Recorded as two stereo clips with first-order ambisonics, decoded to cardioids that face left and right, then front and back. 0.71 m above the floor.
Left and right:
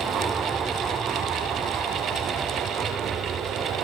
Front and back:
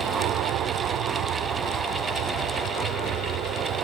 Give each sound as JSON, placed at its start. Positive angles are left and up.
{"t": 0.0, "sound": "an aircraft", "azimuth_deg": -165}